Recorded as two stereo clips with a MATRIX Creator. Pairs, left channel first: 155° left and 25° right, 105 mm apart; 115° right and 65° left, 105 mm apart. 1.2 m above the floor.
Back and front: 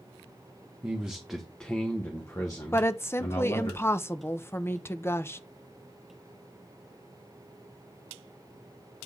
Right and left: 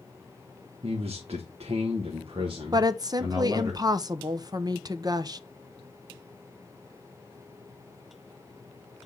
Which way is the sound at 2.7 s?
100° left.